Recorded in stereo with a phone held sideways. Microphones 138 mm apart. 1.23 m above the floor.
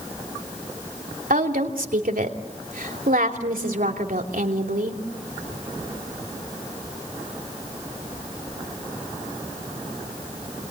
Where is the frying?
No frying in this recording.